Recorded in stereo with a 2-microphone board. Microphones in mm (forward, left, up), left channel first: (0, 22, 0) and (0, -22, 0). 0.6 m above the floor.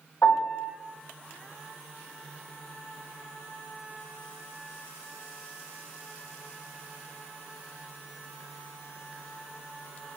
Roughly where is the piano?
Left.